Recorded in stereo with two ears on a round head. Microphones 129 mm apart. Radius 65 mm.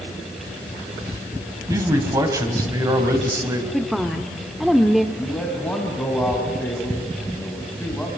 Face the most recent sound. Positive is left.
turn(degrees=5)  # may be behind; listen again after turning